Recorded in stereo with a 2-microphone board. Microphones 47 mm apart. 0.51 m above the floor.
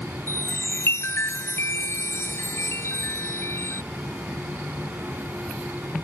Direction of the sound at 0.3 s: 65° left (ahead or behind).